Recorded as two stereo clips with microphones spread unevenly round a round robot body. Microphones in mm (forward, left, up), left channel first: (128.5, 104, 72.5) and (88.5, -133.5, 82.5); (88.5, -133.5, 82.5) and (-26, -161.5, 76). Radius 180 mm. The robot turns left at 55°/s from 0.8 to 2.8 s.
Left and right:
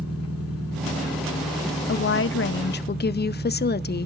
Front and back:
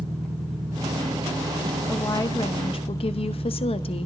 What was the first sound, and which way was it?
An engine running, 60° left.